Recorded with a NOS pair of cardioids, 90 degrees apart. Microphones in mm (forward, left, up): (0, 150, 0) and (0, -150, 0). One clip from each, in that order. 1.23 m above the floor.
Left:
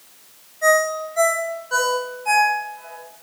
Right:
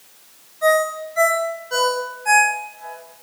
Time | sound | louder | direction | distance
0.6 | a ringtone | even | 20° right | 2 m